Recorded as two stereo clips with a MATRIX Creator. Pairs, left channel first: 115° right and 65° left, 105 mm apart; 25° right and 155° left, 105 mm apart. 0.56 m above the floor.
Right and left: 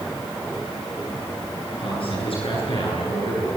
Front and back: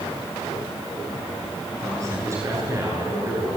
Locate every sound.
1.8 s a man speaking: 140° right, 9.5 m